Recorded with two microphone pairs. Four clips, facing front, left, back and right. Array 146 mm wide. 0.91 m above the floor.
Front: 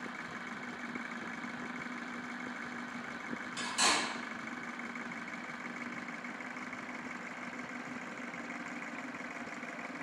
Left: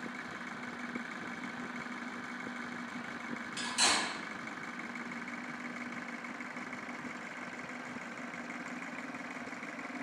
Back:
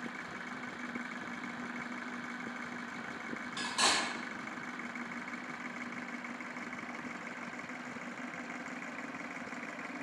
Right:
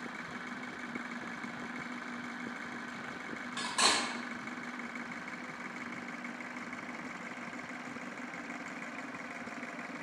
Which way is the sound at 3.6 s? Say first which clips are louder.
Right 2 dB, even; 125° right.